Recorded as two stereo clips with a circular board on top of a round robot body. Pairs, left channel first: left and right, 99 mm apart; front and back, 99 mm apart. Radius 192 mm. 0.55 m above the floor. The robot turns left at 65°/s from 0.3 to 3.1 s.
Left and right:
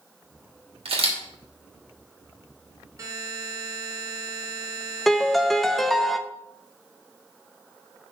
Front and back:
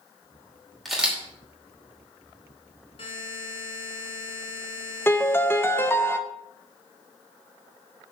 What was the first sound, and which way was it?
A camera shutter, 90° right.